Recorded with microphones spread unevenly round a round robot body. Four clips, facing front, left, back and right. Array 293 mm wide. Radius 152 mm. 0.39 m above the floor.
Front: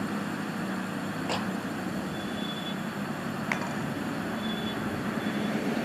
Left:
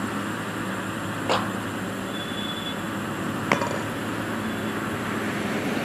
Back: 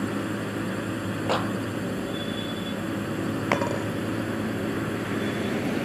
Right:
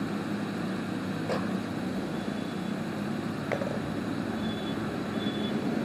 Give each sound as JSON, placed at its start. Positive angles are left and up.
{"t": 0.0, "sound": "a drone", "azimuth_deg": 165}
{"t": 1.3, "sound": "a clap", "azimuth_deg": 95}
{"t": 3.5, "sound": "a dropped coin", "azimuth_deg": 110}